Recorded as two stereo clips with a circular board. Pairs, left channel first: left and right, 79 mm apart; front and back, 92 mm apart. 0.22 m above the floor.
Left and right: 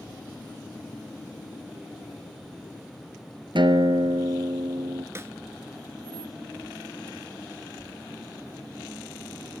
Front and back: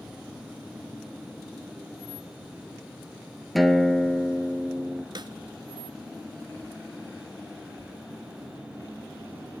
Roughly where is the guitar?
Right.